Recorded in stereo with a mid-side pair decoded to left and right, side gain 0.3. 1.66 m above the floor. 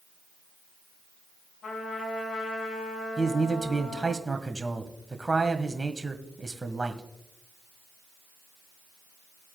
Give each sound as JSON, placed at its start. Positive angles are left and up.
{"t": 1.6, "sound": "a trumpet", "azimuth_deg": 65, "distance_m": 6.5}
{"t": 3.2, "sound": "a man speaking", "azimuth_deg": -25, "distance_m": 1.6}